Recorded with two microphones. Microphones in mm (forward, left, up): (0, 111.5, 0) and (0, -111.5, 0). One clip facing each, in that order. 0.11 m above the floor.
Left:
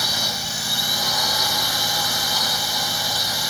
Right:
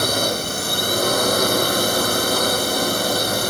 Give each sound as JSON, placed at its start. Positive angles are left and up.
{"t": 0.0, "sound": "a drone", "side_deg": -55}